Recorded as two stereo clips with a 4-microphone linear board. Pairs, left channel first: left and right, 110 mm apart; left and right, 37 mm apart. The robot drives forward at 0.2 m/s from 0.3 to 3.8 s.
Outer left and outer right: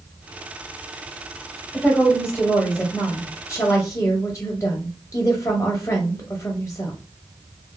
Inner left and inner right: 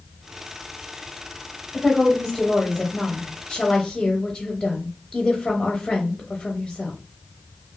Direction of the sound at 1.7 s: 15° left (ahead or behind).